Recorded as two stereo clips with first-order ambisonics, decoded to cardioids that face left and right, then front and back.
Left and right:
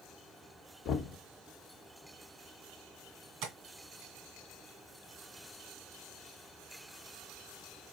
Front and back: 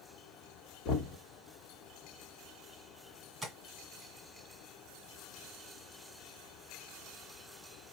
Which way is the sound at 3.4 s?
90° right.